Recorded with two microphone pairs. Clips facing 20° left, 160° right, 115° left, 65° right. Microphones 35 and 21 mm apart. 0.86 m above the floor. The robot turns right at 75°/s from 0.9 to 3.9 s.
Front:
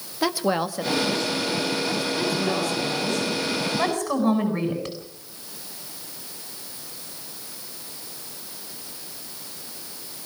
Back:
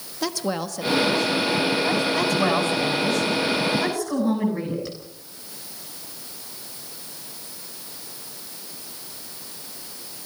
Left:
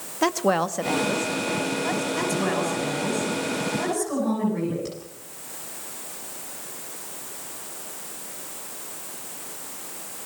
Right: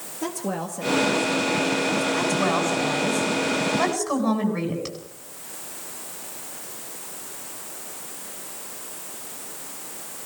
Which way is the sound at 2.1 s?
145° right.